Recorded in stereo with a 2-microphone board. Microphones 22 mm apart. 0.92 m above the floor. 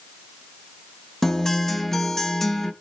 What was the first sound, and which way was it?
A guitar, 20° left (ahead or behind).